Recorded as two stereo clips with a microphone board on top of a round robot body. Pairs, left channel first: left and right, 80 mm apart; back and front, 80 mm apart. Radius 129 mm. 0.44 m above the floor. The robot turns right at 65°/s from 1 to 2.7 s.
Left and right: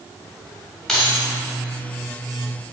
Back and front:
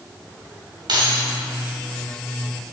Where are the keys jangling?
10° left, 2.5 m; by 1.3 s 25° left, 2.5 m.